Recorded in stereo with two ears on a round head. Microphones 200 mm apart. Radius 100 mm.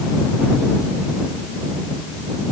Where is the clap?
No clap in this recording.